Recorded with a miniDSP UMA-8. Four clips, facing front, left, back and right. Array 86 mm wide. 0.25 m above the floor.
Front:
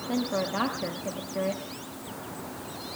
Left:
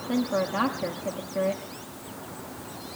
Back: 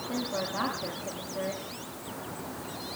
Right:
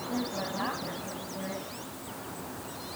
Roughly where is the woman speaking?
Ahead left.